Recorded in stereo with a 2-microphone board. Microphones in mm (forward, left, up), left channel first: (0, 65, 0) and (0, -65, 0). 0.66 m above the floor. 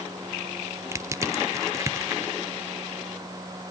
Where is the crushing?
25° right (ahead or behind), 1.0 m.